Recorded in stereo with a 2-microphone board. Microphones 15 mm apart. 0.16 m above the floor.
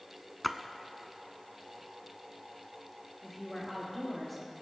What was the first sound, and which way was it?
A splash, 10° left (ahead or behind).